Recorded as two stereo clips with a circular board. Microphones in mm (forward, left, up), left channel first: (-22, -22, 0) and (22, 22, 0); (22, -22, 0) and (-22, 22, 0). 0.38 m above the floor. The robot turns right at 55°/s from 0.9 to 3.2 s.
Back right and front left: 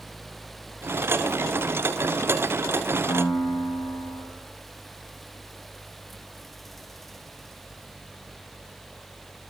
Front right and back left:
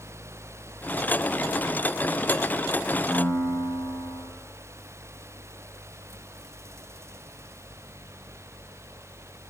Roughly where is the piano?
Behind right.